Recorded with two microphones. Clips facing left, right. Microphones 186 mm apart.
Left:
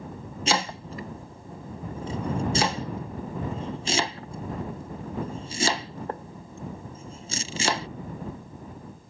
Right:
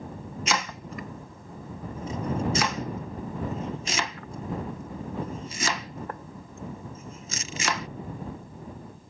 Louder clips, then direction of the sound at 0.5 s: Left 4 dB; 30° left (ahead or behind).